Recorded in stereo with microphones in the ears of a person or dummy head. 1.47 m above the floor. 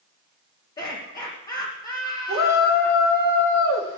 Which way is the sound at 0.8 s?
25° left (ahead or behind).